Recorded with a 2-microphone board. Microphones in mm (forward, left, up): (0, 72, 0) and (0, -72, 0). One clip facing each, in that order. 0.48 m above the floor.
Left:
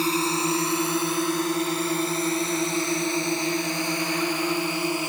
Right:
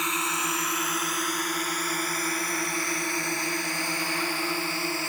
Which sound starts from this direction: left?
A drone, at 0.0 s.